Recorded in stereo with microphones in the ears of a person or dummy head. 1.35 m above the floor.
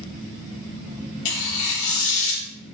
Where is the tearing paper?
65° left (ahead or behind), 1.0 m.